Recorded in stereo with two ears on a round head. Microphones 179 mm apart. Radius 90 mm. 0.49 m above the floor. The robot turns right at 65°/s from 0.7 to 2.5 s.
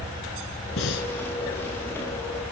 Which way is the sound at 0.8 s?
75° left (ahead or behind).